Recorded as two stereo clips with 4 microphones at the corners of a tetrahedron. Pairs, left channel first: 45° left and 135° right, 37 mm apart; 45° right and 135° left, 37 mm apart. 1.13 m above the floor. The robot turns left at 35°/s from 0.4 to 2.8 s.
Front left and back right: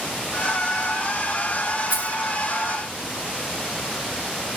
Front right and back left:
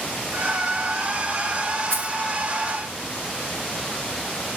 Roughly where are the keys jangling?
Behind.